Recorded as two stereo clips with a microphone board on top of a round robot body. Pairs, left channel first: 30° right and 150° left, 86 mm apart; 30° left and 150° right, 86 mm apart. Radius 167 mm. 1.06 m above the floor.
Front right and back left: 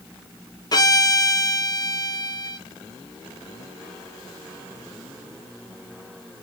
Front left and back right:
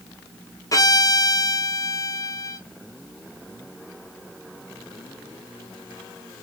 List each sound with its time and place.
0.7 s a violin: 5° right, 1.1 m